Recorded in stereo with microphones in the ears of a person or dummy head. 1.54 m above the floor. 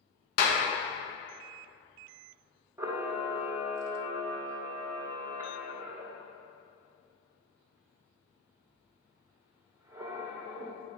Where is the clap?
55° left (ahead or behind), 1.3 m.